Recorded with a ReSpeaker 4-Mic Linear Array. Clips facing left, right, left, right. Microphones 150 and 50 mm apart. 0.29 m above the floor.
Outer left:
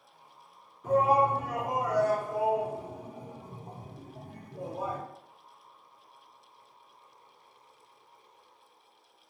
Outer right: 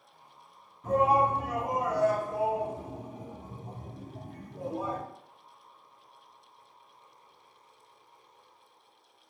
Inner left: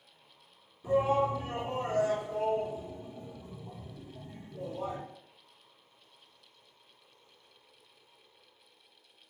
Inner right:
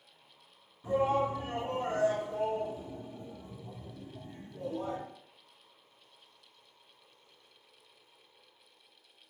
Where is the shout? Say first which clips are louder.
Even, inner left 2 dB; 20° right (ahead or behind), 1.9 m.